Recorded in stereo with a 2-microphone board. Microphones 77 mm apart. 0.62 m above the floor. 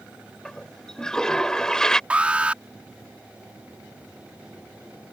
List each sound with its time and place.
0.5 s a toilet flushing: 10° left (ahead or behind)
2.1 s an alarm: 15° right (ahead or behind)